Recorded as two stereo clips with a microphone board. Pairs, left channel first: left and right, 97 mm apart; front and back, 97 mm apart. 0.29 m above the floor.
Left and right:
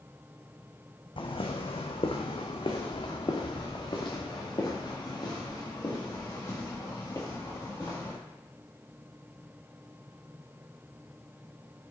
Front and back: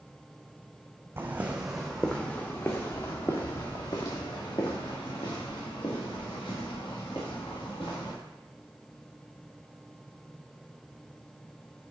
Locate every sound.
1.2 s footsteps: 110° left, 1.0 m; by 8.1 s 35° left, 4.5 m